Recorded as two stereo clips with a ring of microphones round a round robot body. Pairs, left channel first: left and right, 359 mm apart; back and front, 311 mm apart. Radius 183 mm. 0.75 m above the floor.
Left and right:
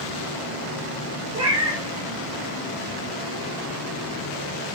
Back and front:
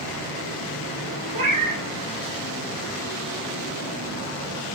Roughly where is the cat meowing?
Ahead.